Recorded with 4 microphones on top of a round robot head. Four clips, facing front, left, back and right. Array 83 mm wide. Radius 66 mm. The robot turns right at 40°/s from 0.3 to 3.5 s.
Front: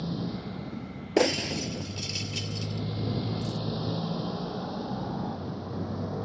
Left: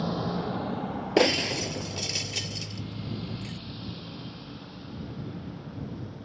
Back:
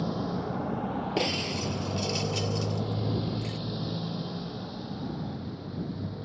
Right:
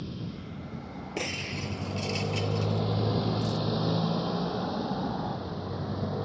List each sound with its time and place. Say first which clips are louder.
0.0 s a motorcycle: left 9 dB, back 3 dB; 115° left; by 6.3 s 55° right
1.2 s breaking glass: left 12 dB, front 9 dB; 55° left; by 3.6 s 145° left